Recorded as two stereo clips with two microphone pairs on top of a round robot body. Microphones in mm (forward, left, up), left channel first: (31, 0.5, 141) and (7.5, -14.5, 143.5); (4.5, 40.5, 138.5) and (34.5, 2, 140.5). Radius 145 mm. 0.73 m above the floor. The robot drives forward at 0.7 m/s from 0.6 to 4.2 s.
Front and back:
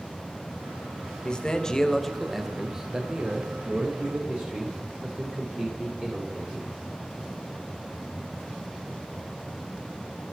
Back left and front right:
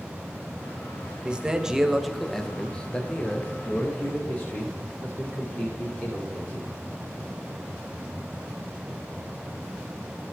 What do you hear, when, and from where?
1.2 s a man speaking: 10° left, 1.2 m; by 6.7 s 175° left, 1.6 m